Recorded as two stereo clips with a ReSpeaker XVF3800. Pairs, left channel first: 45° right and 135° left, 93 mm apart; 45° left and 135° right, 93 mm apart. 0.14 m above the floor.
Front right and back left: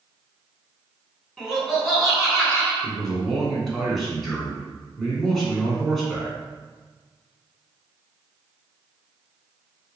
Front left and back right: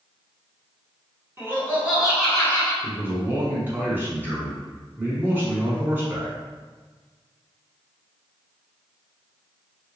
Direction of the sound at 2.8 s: 130° right.